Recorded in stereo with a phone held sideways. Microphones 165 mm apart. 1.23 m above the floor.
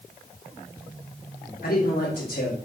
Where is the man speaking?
80° left, 3 m.